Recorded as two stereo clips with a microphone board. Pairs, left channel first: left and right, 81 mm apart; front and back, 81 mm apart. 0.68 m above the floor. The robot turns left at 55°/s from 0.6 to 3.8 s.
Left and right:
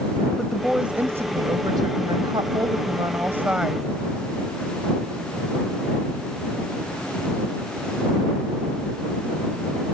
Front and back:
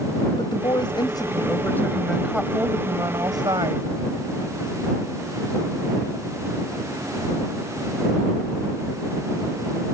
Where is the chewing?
No chewing in this recording.